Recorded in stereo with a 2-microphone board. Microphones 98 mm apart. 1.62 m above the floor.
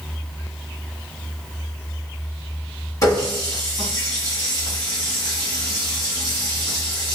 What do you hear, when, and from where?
3.0 s a running tap: 35° left (ahead or behind), 1.5 m